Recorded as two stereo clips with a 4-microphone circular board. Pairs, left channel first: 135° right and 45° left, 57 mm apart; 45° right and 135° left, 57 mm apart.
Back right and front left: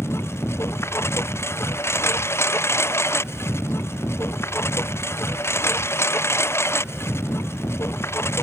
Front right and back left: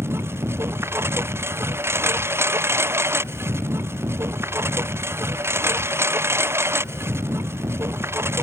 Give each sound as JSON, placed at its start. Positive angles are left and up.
{"t": 0.0, "sound": "a lawn mower", "azimuth_deg": 180}